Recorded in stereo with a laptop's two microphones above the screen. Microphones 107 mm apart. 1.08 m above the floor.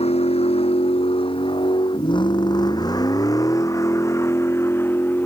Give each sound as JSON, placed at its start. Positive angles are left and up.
{"t": 0.0, "sound": "a vehicle", "side_deg": 75}